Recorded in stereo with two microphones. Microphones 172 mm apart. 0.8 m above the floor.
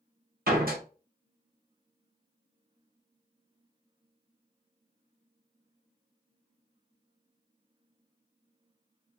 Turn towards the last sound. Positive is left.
turn(degrees=-60)  # may be behind; listen again after turning